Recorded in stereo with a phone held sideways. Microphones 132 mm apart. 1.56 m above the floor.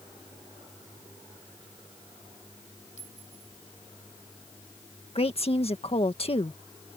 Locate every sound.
3.0 s a clink: 65° left (ahead or behind)
5.2 s a woman speaking: 50° left (ahead or behind)